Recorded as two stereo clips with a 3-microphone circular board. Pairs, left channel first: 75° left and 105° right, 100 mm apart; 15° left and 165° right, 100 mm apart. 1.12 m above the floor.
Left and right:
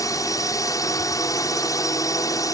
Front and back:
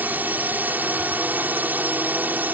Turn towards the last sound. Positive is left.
turn(degrees=125)